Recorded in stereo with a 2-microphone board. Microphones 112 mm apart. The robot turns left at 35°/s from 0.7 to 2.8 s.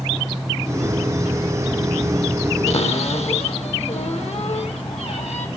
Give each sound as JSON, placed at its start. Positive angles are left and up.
{"t": 2.7, "sound": "a cupboard door", "side_deg": 70, "distance_m": 2.5}